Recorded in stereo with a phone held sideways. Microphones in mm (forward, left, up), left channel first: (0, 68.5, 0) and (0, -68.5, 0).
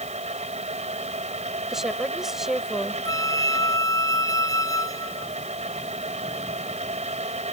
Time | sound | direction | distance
0.0 | a fan | 55° right (ahead or behind) | ?
1.7 | a woman speaking | 5° right (ahead or behind) | ?
3.0 | a flute | 25° left (ahead or behind) | ?